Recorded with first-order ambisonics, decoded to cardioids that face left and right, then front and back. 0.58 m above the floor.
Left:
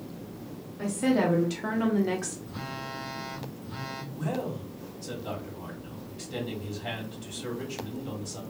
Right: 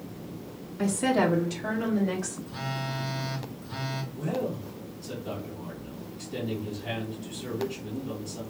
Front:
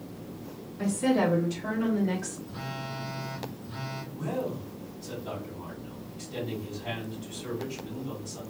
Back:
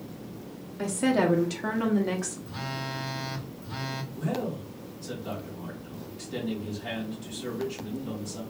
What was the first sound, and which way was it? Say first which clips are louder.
A woman speaking: right 2 dB, back 1 dB; 135° right.